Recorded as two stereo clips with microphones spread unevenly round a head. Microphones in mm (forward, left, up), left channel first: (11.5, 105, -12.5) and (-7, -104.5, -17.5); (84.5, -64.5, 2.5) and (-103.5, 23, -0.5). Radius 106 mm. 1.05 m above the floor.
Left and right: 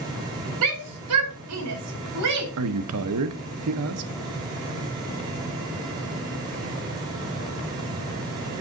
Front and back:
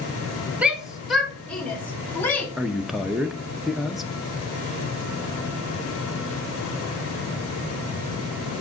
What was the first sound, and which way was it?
A shout, 120° right.